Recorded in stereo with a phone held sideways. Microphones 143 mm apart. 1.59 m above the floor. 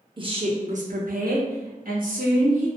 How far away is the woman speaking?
About 0.7 m.